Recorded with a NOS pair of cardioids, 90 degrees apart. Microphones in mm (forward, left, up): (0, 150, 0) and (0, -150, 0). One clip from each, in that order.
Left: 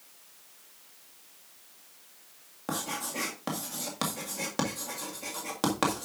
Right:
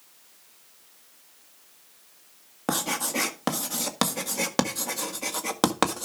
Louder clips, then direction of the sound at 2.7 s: Right 7 dB; 55° right.